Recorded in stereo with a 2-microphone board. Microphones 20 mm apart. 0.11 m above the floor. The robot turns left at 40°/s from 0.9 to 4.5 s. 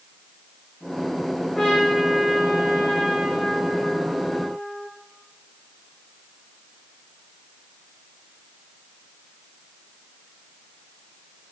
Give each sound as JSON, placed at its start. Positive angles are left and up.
{"t": 1.6, "sound": "a trumpet", "azimuth_deg": 35, "distance_m": 4.0}